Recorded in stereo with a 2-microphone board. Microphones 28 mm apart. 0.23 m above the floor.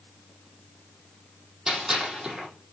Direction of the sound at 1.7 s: 20° right (ahead or behind).